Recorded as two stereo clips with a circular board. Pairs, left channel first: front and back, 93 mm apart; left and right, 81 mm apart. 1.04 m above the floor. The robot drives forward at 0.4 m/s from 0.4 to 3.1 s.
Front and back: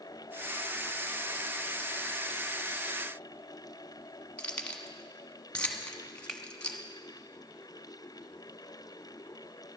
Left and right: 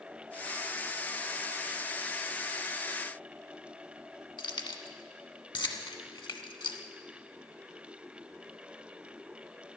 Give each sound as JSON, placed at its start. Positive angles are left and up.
{"t": 4.4, "sound": "keys jangling", "azimuth_deg": 80, "distance_m": 1.2}
{"t": 6.3, "sound": "a finger snap", "azimuth_deg": 90, "distance_m": 1.0}